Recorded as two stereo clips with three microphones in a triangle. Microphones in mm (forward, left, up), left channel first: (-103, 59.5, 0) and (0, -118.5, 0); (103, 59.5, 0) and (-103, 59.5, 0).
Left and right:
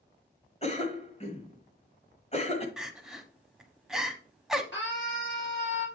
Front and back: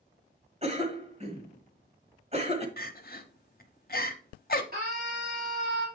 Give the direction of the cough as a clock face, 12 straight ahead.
7 o'clock.